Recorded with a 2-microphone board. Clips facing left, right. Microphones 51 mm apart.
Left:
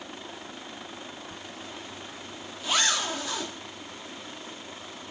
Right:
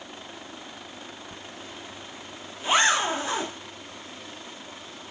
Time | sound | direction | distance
1.3 | a zipper | 30° right (ahead or behind) | ?